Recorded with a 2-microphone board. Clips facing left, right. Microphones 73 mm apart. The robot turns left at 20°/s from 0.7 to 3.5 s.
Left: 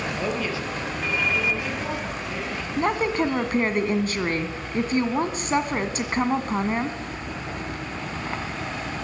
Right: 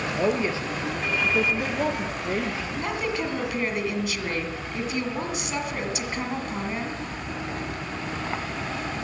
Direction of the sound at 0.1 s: 30° right.